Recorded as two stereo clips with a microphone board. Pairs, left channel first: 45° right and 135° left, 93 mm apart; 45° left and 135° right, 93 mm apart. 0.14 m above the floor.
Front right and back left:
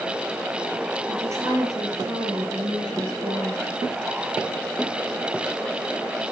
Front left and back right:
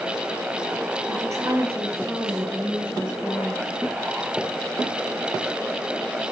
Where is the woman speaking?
175° right, 2.5 m; by 3.7 s 135° left, 2.5 m.